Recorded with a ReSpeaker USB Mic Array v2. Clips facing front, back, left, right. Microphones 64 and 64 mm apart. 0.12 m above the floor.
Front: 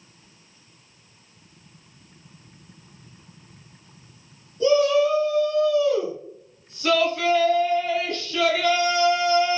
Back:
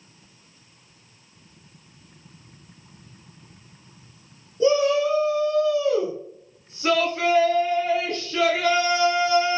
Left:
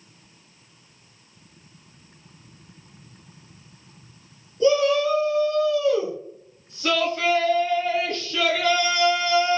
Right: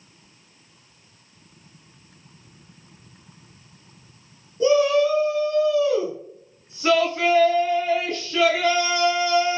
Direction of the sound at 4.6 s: 140° right.